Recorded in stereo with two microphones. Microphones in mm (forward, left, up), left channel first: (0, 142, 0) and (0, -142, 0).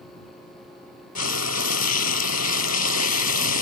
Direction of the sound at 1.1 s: 65° left (ahead or behind).